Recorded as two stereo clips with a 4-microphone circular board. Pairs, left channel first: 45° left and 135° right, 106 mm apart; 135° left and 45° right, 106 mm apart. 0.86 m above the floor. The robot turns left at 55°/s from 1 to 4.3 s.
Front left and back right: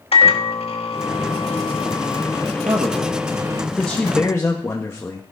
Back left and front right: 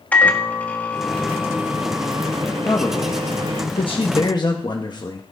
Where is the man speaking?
165° right, 1.1 m; by 5.2 s 105° left, 1.1 m.